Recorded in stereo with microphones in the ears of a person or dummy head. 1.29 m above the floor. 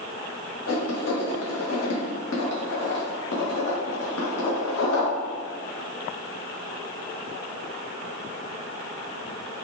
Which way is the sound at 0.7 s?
80° left.